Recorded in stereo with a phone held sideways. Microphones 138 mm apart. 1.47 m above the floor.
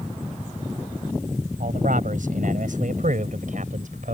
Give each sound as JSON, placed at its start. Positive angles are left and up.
{"t": 1.6, "sound": "a man speaking", "side_deg": -75}